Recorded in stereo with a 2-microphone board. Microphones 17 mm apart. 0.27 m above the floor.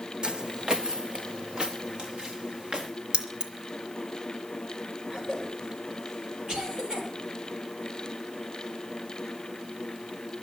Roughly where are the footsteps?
Right.